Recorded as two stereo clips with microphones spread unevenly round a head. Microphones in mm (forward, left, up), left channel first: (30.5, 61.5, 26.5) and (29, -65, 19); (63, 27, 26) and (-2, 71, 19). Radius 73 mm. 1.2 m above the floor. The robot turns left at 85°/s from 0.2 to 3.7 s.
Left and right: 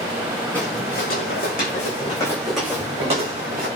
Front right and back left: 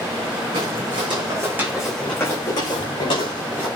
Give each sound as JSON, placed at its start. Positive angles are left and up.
{"t": 0.5, "sound": "footsteps", "azimuth_deg": 170, "distance_m": 5.0}